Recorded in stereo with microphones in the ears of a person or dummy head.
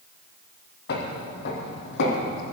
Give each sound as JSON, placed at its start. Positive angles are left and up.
{"t": 0.9, "sound": "footsteps", "side_deg": 55, "distance_m": 3.0}